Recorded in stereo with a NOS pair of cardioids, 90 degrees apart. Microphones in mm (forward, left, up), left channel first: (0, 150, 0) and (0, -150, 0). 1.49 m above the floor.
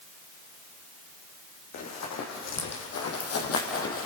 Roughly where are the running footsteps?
Ahead left.